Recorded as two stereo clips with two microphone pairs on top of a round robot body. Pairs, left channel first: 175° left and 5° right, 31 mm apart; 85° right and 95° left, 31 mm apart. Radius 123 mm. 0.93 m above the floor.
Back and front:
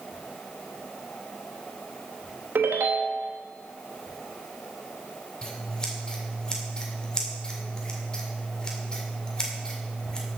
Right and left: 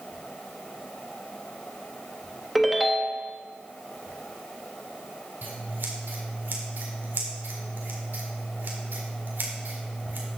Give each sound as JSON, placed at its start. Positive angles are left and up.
{"t": 2.5, "sound": "a ringtone", "azimuth_deg": 5, "distance_m": 0.9}
{"t": 5.4, "sound": "scissors", "azimuth_deg": 110, "distance_m": 1.8}